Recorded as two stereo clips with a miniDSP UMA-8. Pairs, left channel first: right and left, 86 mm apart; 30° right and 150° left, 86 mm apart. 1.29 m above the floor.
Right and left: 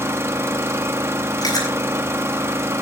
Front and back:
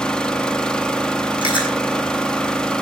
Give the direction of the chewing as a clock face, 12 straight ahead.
2 o'clock.